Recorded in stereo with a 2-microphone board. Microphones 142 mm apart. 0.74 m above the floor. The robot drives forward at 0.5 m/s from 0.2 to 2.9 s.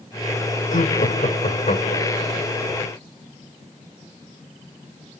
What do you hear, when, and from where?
0.7 s laughter: 65° left (ahead or behind), 2 m; by 2.3 s 50° left (ahead or behind), 2.5 m